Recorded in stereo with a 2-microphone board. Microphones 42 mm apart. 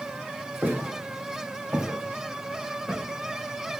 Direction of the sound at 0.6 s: 55° right (ahead or behind).